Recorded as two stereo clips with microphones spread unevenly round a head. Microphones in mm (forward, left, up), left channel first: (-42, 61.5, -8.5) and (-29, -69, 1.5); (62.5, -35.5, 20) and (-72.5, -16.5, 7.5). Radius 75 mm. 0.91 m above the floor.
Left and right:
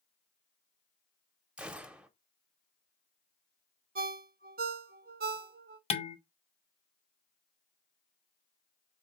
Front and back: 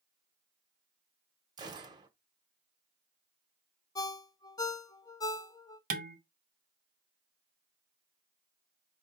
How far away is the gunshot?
About 0.7 m.